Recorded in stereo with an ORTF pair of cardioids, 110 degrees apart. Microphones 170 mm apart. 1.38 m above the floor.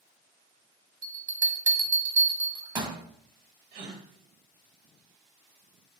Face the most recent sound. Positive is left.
turn(degrees=-65)